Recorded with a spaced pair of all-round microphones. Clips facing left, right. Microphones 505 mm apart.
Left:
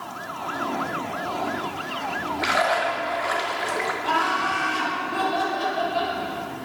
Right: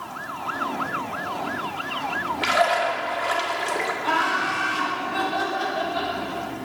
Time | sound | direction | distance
2.4 | a splash | 55° right (ahead or behind) | 0.8 m
4.0 | laughter | 80° right | 2.5 m